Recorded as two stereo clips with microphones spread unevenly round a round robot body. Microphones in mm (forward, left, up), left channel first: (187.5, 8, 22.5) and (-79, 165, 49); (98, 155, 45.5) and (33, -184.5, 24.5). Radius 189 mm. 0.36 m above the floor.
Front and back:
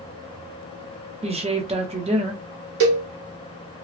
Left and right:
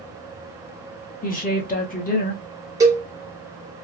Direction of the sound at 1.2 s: 100° left.